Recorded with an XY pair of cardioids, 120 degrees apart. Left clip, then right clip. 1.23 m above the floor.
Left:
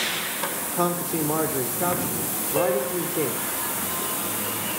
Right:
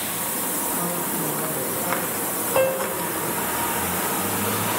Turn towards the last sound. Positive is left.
turn(degrees=-30)